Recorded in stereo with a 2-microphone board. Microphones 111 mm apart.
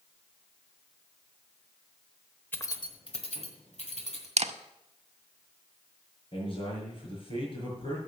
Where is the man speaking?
50° left (ahead or behind), 6 m.